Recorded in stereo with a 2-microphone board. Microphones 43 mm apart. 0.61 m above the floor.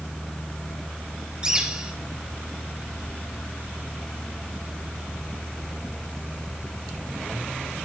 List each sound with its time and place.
1.4 s a bird: 20° right (ahead or behind), 3.5 m